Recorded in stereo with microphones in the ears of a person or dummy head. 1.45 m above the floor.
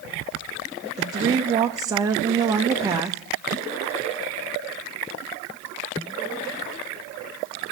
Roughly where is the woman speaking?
Centre.